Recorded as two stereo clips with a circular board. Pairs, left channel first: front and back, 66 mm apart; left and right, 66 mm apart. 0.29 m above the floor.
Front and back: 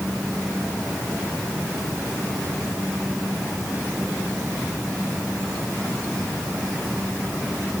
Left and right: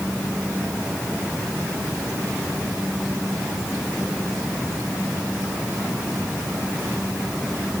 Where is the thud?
No thud in this recording.